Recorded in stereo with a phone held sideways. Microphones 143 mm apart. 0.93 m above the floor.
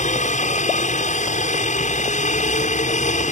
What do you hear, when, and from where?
0.0 s a helicopter: 55° left (ahead or behind)